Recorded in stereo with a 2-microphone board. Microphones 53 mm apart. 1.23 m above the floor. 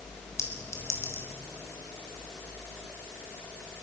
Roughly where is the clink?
Left.